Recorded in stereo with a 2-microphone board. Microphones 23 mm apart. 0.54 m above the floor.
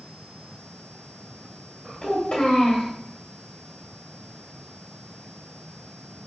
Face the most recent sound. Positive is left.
turn(degrees=45)  # may be behind; listen again after turning